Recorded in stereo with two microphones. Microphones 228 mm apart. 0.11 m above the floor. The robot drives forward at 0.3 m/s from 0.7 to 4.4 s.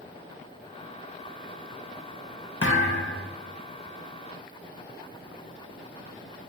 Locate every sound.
2.6 s a thud: 70° left (ahead or behind), 1.0 m; by 3.3 s 60° left (ahead or behind), 1.1 m